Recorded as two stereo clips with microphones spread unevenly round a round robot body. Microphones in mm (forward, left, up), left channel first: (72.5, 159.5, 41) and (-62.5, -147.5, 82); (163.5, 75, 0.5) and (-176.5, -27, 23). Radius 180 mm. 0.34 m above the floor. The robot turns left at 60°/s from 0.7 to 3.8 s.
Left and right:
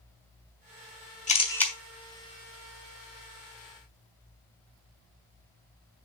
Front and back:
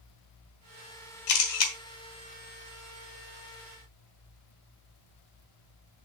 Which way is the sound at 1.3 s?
10° left.